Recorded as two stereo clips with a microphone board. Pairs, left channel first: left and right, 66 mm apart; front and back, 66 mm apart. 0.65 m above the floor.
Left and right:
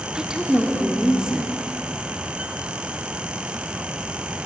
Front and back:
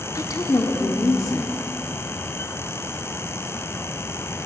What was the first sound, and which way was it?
A woman speaking, 10° right.